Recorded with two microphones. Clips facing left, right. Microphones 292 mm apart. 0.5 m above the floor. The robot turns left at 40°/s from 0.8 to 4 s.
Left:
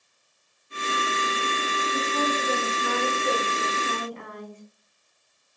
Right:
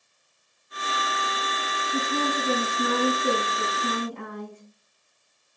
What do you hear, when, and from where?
1.9 s a woman speaking: 40° right, 5 m; by 4.6 s 125° right, 5 m